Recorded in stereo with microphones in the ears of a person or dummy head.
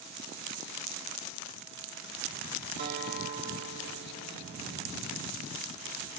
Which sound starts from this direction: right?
A guitar, at 2.8 s.